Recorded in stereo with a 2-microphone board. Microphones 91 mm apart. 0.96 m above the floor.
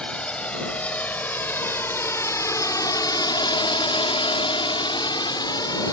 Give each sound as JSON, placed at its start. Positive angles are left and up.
{"t": 0.0, "sound": "a drone", "side_deg": 10}